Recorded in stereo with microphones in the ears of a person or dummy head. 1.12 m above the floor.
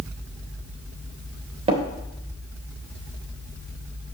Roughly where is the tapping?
Right.